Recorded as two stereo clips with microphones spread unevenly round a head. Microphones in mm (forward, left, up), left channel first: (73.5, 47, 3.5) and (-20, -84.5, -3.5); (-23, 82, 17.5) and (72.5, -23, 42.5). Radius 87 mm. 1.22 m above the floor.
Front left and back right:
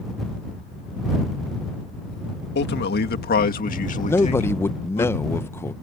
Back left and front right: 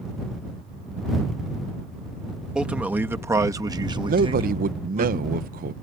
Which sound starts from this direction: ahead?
A man speaking, at 4.1 s.